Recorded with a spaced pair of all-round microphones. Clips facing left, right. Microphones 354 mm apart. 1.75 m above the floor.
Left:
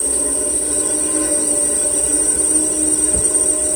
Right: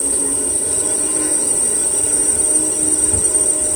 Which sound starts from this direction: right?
An insect, at 0.0 s.